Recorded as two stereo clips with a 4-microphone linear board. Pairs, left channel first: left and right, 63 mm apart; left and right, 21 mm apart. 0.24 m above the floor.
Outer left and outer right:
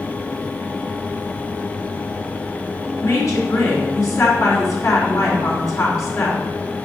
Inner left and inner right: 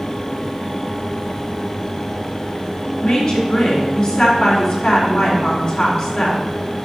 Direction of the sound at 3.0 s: 55° left (ahead or behind).